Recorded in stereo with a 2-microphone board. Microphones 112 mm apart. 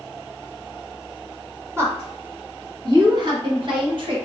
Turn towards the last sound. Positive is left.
turn(degrees=-55)  # may be behind; listen again after turning